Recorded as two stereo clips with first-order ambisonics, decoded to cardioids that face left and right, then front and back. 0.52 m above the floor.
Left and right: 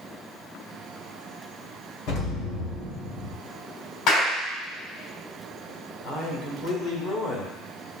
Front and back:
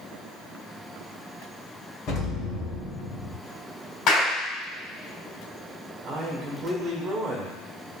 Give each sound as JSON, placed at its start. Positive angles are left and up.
{"t": 2.1, "sound": "an explosion", "azimuth_deg": 55, "distance_m": 2.0}
{"t": 4.1, "sound": "a clap", "azimuth_deg": 50, "distance_m": 3.0}
{"t": 6.0, "sound": "a man speaking", "azimuth_deg": 125, "distance_m": 1.7}